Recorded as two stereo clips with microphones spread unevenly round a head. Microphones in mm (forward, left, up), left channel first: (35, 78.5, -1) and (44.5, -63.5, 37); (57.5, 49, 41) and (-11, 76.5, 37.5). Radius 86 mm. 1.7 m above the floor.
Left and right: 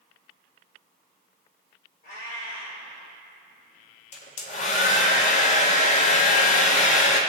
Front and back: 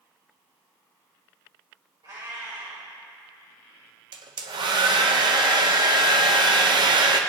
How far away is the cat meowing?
About 4 m.